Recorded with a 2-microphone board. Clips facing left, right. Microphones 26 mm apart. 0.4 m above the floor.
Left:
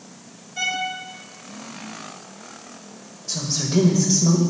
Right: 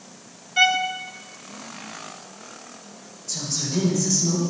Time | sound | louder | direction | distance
0.6 | a violin | right 6 dB | 50° right (ahead or behind) | 0.9 m
3.3 | a woman speaking | left 4 dB | 50° left (ahead or behind) | 1.7 m